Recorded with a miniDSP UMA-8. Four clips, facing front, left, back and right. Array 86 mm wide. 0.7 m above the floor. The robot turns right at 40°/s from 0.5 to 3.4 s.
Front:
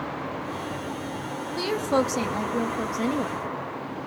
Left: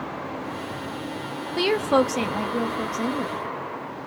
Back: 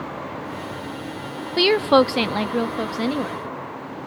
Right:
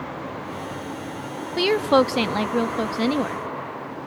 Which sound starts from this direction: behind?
A woman speaking, at 1.6 s.